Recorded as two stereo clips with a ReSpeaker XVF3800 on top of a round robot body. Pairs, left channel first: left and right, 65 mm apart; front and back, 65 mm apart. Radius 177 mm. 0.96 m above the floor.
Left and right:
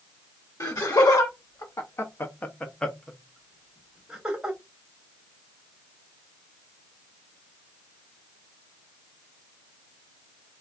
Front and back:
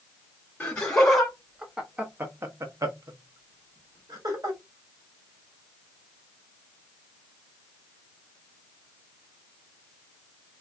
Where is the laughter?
70° left, 1.1 m; by 4.6 s 165° right, 1.5 m.